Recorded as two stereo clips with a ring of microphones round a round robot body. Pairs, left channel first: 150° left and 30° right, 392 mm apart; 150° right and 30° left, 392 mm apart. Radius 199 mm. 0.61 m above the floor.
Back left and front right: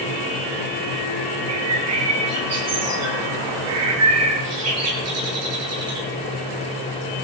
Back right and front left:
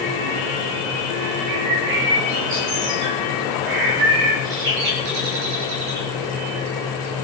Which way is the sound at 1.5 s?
25° left.